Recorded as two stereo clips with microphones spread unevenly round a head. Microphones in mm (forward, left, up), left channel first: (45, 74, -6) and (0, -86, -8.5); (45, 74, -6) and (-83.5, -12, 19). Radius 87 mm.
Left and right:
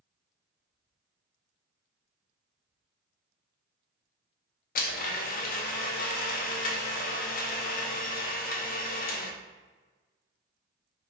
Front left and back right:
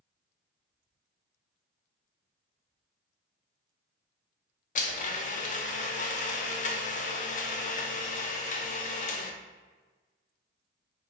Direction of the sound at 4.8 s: 45° left.